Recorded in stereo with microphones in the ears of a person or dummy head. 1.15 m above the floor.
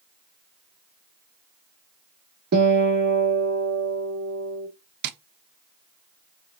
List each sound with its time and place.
2.5 s a guitar: 55° right (ahead or behind), 1.2 m
5.0 s tapping: 55° right (ahead or behind), 0.6 m